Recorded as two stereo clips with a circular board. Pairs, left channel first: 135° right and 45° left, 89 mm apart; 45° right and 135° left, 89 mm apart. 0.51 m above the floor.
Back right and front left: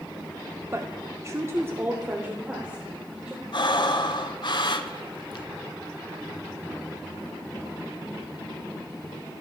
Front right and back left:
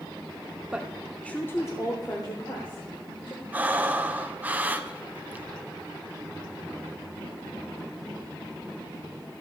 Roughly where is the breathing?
Behind right.